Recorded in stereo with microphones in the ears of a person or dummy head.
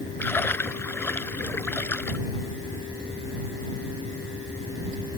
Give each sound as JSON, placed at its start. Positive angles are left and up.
{"t": 0.2, "sound": "a splash", "side_deg": 10}